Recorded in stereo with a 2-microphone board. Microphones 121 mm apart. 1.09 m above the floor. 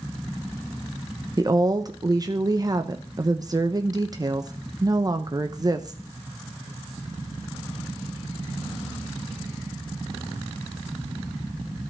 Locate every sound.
1.4 s a woman speaking: 35° right (ahead or behind), 0.9 m